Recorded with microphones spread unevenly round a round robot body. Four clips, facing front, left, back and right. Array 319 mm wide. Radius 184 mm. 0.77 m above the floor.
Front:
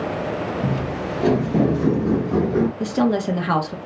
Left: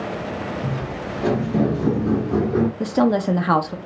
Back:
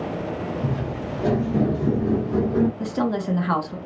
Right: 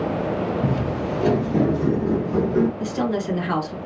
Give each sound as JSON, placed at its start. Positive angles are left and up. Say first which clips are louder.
{"t": 0.6, "sound": "footsteps", "louder": "right 4 dB, front 3 dB", "azimuth_deg": -95, "distance_m": 0.9}
{"t": 2.8, "sound": "a woman speaking", "louder": "left 5 dB, front 4 dB", "azimuth_deg": 65, "distance_m": 0.8}